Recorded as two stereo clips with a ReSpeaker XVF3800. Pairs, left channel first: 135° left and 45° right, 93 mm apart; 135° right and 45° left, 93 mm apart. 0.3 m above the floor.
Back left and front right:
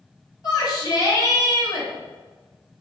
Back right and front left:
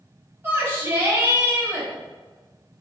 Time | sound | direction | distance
0.4 | a shout | 105° left | 1.5 m